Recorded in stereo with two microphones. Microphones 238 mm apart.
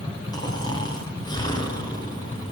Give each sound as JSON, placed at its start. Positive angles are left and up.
{"t": 0.3, "sound": "snoring", "side_deg": 15, "distance_m": 5.0}